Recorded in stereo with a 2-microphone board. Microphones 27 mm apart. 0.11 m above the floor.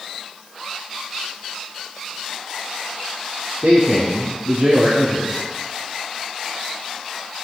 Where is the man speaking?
65° right (ahead or behind), 3 m.